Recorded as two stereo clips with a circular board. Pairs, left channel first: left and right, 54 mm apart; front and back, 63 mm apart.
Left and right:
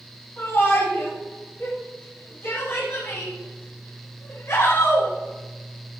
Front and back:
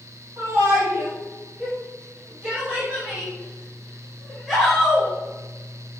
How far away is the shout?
About 8 m.